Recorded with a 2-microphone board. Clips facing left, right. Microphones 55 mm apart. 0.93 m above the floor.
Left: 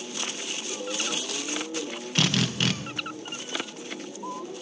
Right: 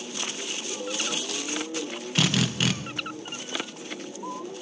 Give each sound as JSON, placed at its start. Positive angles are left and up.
{"t": 2.1, "sound": "a drill", "side_deg": -5, "distance_m": 1.0}